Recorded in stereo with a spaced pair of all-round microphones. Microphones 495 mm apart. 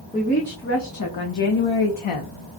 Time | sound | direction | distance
0.1 | a woman speaking | 15° left (ahead or behind) | 1.0 m